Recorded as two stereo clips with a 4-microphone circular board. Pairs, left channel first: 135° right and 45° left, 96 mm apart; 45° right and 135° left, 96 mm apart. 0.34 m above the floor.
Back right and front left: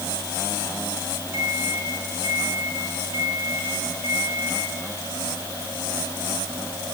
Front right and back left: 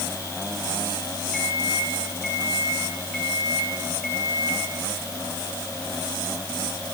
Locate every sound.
1.3 s a microwave: 135° right, 6 m